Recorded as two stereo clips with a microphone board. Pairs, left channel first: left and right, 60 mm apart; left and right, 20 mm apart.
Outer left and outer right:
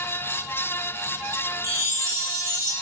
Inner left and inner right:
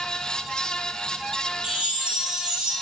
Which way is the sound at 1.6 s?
55° right (ahead or behind).